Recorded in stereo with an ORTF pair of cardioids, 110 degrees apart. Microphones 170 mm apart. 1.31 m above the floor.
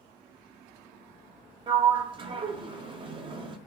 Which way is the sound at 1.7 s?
30° right.